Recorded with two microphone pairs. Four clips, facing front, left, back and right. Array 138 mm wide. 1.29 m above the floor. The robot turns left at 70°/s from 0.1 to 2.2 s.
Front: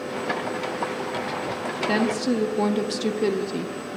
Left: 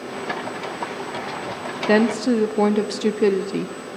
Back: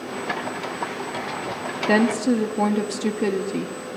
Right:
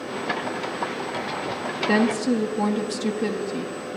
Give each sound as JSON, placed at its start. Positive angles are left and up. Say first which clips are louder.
{"t": 1.9, "sound": "a woman speaking", "louder": "left 4 dB, back 4 dB", "azimuth_deg": 120, "distance_m": 0.7}